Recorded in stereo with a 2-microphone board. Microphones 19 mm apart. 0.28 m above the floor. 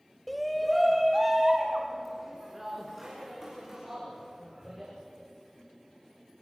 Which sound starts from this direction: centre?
A shout, at 0.3 s.